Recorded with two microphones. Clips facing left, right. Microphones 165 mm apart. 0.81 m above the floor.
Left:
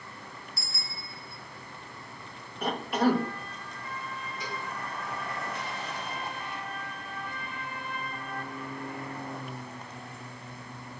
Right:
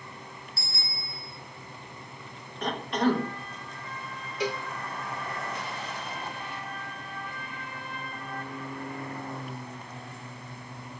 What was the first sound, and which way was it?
A bicycle bell, 30° right (ahead or behind).